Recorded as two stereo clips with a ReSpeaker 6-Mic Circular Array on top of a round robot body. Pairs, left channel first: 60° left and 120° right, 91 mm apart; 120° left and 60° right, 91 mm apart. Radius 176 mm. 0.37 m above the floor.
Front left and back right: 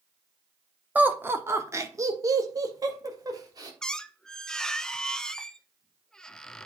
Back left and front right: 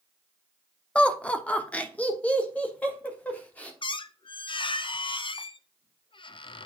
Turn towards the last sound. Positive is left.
turn(degrees=145)